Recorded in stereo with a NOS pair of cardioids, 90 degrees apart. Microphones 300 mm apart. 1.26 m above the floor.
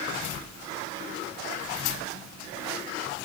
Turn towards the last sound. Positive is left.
No sound to turn to.